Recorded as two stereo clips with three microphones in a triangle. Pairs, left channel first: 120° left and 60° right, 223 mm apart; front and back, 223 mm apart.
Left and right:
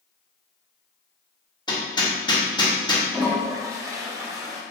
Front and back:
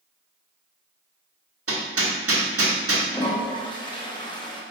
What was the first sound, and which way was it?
Hammering, 170° right.